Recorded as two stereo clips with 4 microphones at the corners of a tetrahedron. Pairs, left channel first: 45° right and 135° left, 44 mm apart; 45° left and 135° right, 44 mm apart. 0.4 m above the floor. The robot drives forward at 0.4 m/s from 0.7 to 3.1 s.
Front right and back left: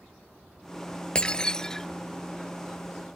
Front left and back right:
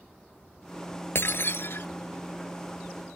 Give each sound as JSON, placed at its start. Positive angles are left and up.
{"t": 1.1, "sound": "breaking glass", "azimuth_deg": 20}